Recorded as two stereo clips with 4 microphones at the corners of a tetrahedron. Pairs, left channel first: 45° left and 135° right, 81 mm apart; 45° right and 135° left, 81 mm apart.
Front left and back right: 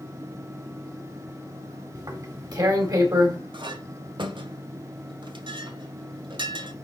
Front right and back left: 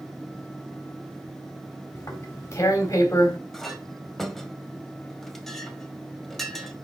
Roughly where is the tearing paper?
Right.